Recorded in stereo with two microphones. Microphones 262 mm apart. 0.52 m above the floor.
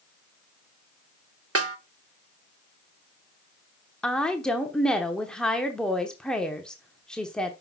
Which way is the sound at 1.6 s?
60° right (ahead or behind).